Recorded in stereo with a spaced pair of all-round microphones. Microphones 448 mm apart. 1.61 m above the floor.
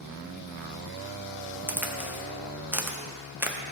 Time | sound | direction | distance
1.7 | a crack | 5° right (ahead or behind) | 0.8 m